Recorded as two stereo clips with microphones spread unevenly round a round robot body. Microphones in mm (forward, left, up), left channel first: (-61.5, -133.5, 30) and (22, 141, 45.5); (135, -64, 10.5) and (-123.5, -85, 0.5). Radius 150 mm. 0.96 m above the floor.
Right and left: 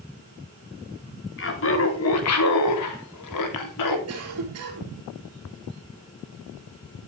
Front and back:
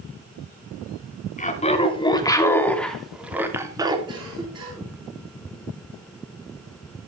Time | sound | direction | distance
1.4 | laughter | 60° right | 3 m
4.1 | a cough | 110° left | 3.5 m